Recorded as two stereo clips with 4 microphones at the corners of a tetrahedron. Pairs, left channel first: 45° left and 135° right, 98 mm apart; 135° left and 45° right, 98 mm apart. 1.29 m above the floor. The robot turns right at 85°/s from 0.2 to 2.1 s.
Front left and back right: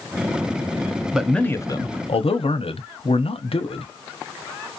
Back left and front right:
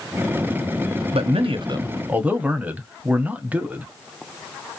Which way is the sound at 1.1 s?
55° right.